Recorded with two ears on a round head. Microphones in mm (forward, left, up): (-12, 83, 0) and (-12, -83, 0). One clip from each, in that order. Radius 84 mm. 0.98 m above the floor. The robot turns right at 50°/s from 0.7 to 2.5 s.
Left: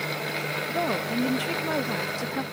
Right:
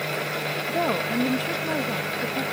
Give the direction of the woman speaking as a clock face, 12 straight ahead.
1 o'clock.